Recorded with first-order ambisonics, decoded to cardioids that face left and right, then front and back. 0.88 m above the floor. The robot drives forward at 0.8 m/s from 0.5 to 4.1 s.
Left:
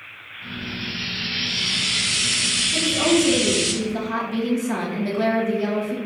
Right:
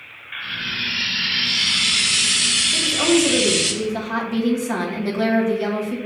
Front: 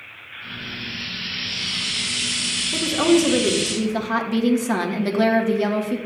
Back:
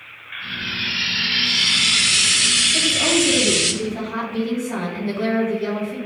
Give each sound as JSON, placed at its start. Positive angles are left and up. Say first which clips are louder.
{"t": 0.3, "sound": "frying", "louder": "right 7 dB, back 7 dB", "azimuth_deg": -115, "distance_m": 0.9}
{"t": 2.7, "sound": "a woman speaking", "louder": "right 1 dB, back 1 dB", "azimuth_deg": -5, "distance_m": 3.0}